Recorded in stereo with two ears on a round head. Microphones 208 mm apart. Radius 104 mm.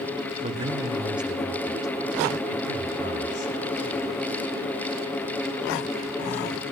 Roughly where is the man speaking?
Right.